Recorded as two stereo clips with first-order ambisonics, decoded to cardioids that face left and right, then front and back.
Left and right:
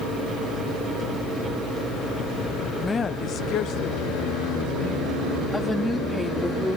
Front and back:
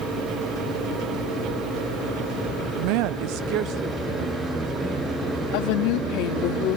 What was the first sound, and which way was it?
A woman speaking, straight behind.